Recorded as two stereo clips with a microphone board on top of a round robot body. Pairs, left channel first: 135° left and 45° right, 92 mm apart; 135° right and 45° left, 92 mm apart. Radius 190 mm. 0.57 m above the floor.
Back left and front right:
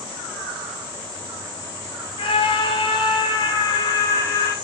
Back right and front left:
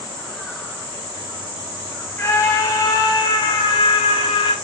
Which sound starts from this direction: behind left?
A scream, at 2.2 s.